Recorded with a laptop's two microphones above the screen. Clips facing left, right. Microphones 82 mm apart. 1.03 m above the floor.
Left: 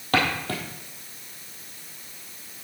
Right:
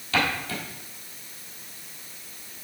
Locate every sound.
0.1 s footsteps: 50° left (ahead or behind), 1.7 m